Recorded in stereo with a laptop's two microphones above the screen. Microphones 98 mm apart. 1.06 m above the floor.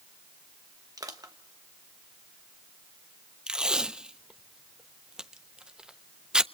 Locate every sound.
1.0 s crushing: 40° right (ahead or behind), 1.2 m
3.5 s tape being pulled: 10° right (ahead or behind), 0.5 m